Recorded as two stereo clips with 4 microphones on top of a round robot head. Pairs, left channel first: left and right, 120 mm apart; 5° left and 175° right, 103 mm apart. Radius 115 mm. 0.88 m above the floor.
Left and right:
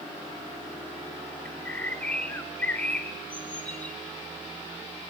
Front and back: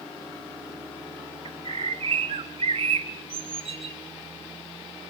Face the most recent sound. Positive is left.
turn(degrees=170)